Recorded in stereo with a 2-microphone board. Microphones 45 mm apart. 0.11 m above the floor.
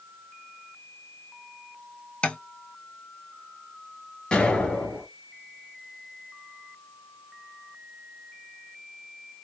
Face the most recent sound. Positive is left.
turn(degrees=20)  # may be behind; listen again after turning